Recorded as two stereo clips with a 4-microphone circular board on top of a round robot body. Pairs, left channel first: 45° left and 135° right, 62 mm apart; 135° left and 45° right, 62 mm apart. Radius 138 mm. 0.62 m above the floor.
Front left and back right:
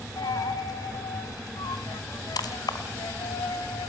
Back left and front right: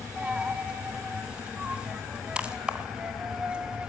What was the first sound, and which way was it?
A dropped coin, 30° left.